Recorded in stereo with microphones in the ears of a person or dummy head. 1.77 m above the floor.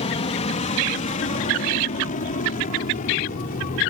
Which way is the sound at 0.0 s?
30° left (ahead or behind).